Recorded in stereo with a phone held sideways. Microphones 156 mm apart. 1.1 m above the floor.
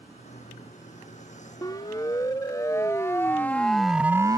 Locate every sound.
0.0 s a vehicle: 50° left (ahead or behind); by 4.4 s 55° left (ahead or behind)
1.6 s a siren: 25° left (ahead or behind); by 4.4 s 25° right (ahead or behind)